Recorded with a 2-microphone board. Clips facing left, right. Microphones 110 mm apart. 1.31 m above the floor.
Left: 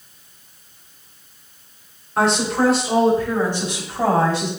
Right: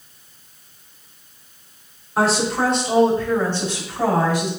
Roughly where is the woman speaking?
Centre.